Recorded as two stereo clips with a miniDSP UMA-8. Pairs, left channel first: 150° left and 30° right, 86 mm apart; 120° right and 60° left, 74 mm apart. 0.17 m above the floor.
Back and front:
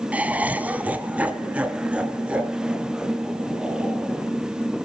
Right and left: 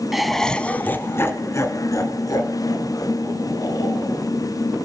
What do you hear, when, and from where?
0.1 s laughter: 15° right, 1.2 m; by 4.2 s 110° right, 4 m